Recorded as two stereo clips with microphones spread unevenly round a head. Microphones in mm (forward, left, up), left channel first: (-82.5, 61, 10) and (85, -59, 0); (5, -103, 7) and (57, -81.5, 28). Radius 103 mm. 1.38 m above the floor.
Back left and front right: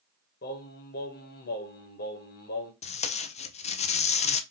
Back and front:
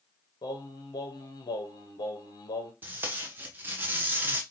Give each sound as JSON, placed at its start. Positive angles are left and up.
{"t": 0.4, "sound": "singing", "azimuth_deg": -170, "distance_m": 1.0}
{"t": 2.8, "sound": "tape being pulled", "azimuth_deg": 95, "distance_m": 0.5}